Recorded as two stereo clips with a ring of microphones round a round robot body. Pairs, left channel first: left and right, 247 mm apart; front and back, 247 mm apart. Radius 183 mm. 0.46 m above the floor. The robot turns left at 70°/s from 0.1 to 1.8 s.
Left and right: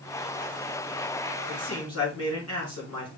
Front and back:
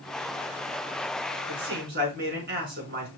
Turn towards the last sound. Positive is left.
turn(degrees=140)